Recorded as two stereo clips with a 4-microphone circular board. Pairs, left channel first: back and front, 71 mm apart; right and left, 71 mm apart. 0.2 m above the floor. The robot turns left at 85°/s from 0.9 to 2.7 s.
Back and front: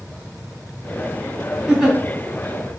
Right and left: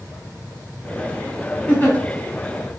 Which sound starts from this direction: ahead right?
A giggle, at 1.7 s.